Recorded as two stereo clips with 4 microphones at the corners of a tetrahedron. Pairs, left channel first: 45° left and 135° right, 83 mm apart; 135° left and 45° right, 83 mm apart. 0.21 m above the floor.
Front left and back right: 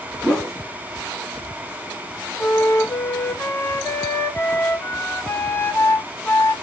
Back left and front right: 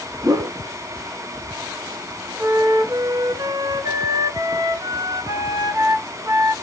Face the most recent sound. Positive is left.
turn(degrees=-20)